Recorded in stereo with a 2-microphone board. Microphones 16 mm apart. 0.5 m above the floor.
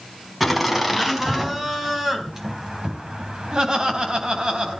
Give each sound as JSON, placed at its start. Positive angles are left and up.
{"t": 0.4, "sound": "laughter", "side_deg": -10, "distance_m": 4.0}